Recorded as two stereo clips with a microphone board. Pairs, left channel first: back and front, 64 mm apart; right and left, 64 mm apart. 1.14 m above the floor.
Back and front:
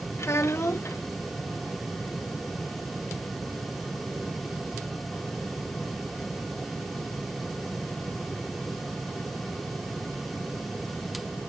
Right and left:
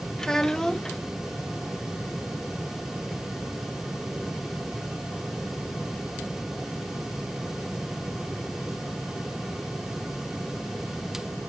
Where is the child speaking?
170° right, 0.6 m.